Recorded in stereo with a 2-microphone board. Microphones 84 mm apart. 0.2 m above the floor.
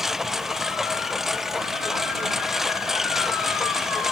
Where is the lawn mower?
5° right (ahead or behind).